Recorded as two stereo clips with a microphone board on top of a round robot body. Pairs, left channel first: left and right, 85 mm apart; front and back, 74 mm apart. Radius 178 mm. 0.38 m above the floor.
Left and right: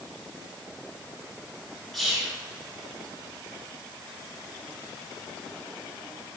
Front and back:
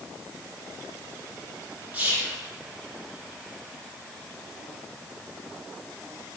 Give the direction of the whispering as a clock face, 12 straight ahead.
6 o'clock.